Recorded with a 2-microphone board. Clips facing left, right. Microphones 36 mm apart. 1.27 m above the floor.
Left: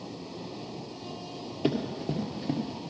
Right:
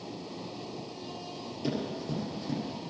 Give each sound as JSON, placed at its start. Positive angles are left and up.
{"t": 1.6, "sound": "running footsteps", "side_deg": 40, "distance_m": 1.7}